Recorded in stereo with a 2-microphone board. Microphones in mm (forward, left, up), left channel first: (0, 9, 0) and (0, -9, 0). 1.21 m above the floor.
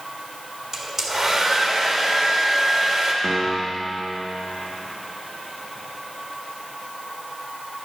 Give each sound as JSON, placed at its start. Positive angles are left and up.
{"t": 0.7, "sound": "a hair dryer", "side_deg": -25, "distance_m": 1.7}
{"t": 3.2, "sound": "a piano", "side_deg": -30, "distance_m": 1.3}